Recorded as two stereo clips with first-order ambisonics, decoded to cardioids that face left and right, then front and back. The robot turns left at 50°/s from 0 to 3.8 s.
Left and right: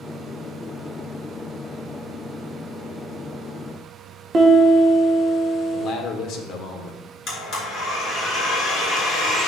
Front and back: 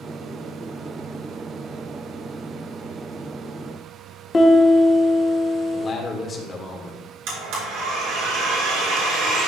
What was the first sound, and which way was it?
A piano, 55° right.